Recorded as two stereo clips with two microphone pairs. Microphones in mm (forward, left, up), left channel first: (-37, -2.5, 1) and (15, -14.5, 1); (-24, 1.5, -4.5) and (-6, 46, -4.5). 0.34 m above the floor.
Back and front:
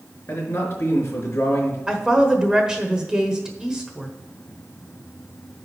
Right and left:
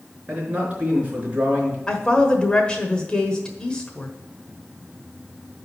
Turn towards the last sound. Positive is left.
turn(degrees=-70)